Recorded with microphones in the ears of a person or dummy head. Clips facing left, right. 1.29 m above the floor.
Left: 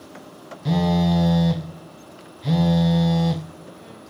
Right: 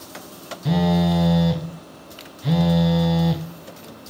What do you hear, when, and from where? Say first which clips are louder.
0.7 s a phone buzzing: right 1 dB; centre (ahead or behind), 0.5 m